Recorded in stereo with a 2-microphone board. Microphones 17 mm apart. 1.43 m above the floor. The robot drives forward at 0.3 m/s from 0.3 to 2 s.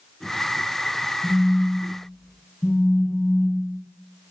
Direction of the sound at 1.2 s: 40° left (ahead or behind).